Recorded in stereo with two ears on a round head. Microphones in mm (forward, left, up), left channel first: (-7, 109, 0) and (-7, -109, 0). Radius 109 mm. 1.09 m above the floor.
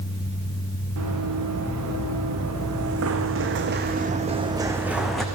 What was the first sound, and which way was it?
Running footsteps, 75° right (ahead or behind).